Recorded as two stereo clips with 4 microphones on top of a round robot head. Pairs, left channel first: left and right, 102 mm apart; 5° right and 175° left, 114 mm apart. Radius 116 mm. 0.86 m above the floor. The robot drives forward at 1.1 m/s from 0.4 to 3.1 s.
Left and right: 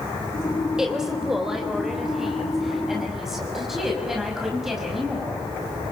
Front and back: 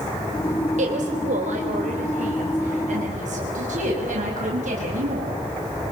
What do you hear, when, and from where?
0.8 s a woman speaking: 175° right, 3.5 m